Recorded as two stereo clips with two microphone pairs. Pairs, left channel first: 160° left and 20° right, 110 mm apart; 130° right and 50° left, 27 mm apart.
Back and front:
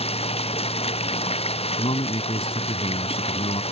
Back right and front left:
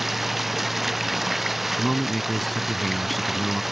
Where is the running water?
135° left.